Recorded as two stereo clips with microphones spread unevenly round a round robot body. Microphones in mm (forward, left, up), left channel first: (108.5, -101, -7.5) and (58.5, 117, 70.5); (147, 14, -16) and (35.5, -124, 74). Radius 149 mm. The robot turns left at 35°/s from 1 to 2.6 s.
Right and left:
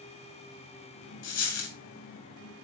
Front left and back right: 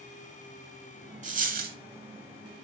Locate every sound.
1.2 s a dropped coin: 85° right, 2 m; by 1.8 s 100° right, 2 m